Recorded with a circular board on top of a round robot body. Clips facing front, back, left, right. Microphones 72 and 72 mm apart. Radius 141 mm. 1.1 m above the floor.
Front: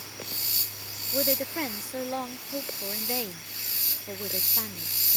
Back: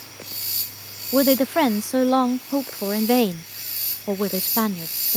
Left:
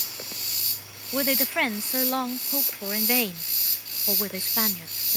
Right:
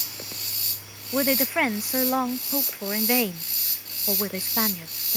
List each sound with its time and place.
1.1 s a woman speaking: 170° right